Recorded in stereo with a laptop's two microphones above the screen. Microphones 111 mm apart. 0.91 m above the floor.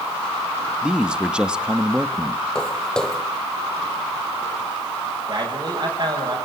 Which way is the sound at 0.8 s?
10° right (ahead or behind).